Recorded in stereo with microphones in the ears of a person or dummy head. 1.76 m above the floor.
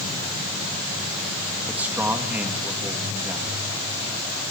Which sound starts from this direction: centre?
A man speaking, at 1.7 s.